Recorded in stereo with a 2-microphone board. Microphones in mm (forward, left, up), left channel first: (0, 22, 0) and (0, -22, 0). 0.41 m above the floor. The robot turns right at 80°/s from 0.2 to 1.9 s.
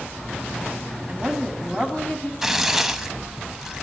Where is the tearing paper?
10° right (ahead or behind), 0.7 m.